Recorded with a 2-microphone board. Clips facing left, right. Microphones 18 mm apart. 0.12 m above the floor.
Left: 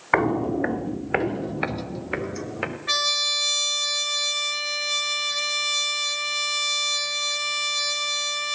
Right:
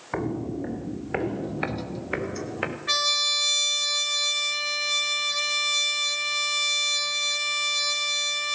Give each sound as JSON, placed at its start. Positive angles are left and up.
{"t": 0.1, "sound": "footsteps", "side_deg": 55, "distance_m": 0.8}
{"t": 2.9, "sound": "a trumpet", "side_deg": 5, "distance_m": 0.8}